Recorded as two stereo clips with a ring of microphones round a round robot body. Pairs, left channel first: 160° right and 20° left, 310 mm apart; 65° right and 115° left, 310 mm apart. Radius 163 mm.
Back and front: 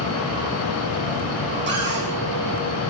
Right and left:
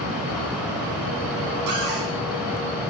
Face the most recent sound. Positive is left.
turn(degrees=80)